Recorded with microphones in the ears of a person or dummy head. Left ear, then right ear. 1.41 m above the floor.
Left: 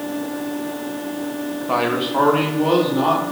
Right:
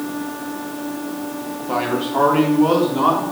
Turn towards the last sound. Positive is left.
turn(degrees=-35)  # may be behind; listen again after turning